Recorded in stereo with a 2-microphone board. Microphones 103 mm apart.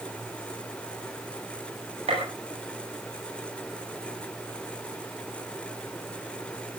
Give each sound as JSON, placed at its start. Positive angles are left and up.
{"t": 2.1, "sound": "a gunshot", "side_deg": -80, "distance_m": 8.5}